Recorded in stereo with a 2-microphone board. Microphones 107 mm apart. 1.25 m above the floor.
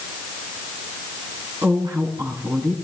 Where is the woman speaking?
40° right (ahead or behind), 7.5 m.